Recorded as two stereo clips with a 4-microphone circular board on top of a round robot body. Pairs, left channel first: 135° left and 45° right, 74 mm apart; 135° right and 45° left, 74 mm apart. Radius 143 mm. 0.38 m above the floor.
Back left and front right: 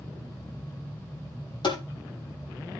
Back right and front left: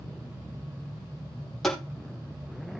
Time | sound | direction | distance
1.6 | tapping | 140° left | 3.5 m